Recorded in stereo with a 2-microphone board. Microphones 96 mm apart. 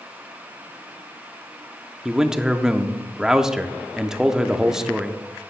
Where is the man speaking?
5° right (ahead or behind), 0.6 m.